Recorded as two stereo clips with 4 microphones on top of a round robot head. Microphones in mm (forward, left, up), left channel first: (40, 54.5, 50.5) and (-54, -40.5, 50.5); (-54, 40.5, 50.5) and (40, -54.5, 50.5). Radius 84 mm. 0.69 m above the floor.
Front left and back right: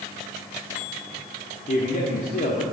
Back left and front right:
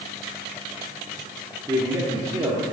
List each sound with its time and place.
1.7 s a man speaking: 20° left, 1.4 m